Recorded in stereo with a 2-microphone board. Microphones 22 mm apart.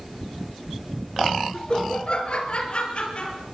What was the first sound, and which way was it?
Laughter, 45° left (ahead or behind).